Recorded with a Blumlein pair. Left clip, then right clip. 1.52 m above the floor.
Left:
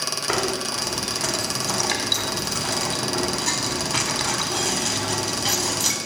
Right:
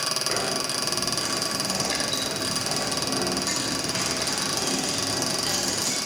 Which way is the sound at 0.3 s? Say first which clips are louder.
Left 2 dB; 65° left.